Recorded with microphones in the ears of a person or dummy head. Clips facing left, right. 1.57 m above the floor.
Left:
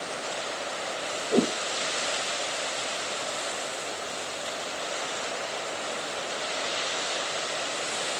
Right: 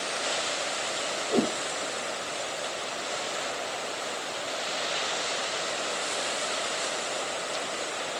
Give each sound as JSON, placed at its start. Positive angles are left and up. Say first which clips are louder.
{"t": 1.3, "sound": "a whoosh", "louder": "left 2 dB", "side_deg": 10, "distance_m": 0.5}